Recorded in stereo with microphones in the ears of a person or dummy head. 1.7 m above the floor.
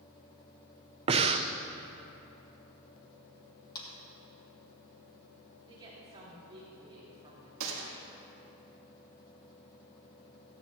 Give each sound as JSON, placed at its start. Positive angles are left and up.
{"t": 1.1, "sound": "breathing", "side_deg": -30, "distance_m": 0.5}
{"t": 3.8, "sound": "a clap", "side_deg": 25, "distance_m": 2.5}
{"t": 5.7, "sound": "a woman speaking", "side_deg": -25, "distance_m": 4.0}
{"t": 7.6, "sound": "a gunshot", "side_deg": -80, "distance_m": 1.9}